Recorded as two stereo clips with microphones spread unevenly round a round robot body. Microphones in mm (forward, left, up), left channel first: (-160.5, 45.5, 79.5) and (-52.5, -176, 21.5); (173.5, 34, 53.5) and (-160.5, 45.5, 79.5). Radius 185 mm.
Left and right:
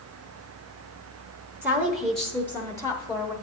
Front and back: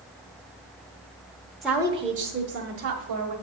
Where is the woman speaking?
80° right, 0.9 m; by 3.3 s 165° right, 1.3 m.